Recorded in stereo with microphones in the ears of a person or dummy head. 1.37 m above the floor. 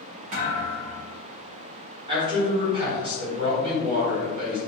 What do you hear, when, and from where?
0.3 s a thud: 40° right (ahead or behind), 1.3 m
2.1 s a man speaking: 30° right (ahead or behind), 1.4 m